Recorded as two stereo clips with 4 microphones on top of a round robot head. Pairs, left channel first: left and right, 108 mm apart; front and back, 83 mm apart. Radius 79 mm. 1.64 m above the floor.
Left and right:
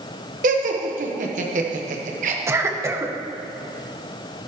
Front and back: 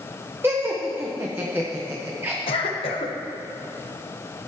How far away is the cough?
About 1.3 m.